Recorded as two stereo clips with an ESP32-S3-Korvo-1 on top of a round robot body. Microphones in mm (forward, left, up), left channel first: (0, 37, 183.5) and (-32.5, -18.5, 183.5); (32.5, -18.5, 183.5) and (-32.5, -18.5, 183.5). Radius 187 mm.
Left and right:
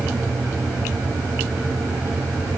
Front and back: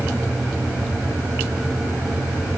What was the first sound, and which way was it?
Only background noise.